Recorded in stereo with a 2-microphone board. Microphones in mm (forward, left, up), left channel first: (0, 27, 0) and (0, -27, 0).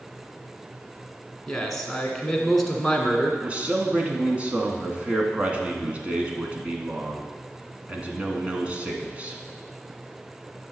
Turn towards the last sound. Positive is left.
turn(degrees=-25)  # may be behind; listen again after turning